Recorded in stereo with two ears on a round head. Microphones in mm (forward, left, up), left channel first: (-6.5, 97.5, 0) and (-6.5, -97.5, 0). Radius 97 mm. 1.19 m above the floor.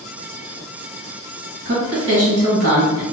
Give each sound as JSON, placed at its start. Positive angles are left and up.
{"t": 1.6, "sound": "a woman speaking", "side_deg": -55, "distance_m": 1.9}